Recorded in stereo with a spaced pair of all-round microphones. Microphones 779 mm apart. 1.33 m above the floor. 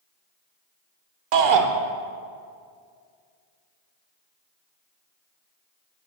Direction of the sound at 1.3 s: 85° right.